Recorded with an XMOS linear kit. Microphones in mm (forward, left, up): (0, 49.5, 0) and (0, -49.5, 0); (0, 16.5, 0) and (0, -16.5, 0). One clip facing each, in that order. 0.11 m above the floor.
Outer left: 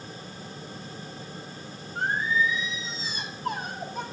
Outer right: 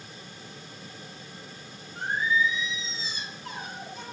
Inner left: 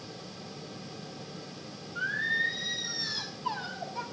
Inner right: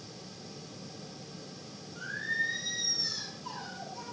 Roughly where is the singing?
Left.